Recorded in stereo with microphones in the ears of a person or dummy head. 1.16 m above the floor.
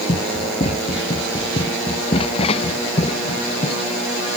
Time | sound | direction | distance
0.1 | running footsteps | 30° left (ahead or behind) | ?